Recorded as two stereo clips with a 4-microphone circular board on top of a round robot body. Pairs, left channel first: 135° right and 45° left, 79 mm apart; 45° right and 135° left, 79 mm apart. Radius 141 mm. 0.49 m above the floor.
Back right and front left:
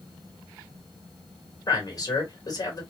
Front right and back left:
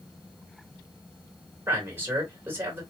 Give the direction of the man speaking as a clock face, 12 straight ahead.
5 o'clock.